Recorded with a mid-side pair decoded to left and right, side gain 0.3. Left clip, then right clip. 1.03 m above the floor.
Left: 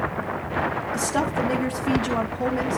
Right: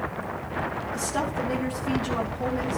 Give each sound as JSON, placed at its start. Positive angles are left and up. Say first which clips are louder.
{"t": 0.9, "sound": "a woman speaking", "louder": "left 3 dB", "azimuth_deg": 60, "distance_m": 2.5}